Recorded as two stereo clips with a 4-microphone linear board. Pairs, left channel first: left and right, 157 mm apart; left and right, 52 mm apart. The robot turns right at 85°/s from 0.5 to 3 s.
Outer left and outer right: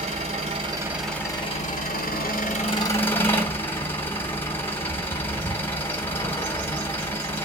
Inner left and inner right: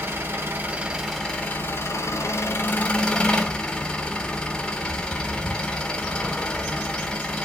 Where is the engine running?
45° right, 2.5 m; by 7.5 s 165° left, 2.5 m.